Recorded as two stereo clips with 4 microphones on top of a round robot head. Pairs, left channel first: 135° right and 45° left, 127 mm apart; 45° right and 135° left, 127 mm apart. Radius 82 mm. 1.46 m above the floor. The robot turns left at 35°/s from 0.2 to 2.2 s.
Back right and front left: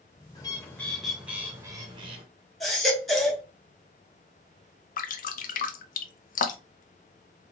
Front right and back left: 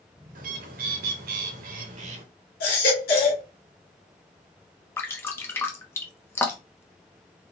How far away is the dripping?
About 0.6 m.